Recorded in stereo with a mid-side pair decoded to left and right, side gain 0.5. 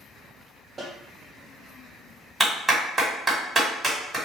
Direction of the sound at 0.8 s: 25° right.